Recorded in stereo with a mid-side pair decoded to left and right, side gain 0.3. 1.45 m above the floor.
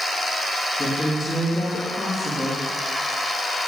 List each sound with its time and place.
0.8 s a woman speaking: 30° left, 3 m